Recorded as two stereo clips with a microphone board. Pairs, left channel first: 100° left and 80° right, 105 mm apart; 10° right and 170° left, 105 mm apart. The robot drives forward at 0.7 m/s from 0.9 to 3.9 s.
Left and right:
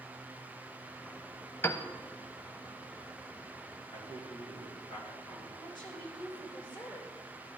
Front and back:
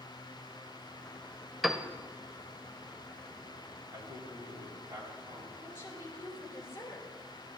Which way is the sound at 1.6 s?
80° left.